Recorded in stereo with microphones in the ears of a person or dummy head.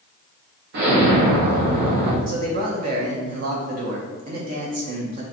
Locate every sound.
0.7 s an explosion: 55° right (ahead or behind), 0.7 m
2.3 s a man speaking: 45° right (ahead or behind), 0.7 m